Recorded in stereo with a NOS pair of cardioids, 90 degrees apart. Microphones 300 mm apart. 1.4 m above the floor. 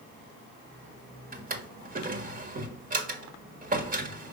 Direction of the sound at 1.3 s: 30° right.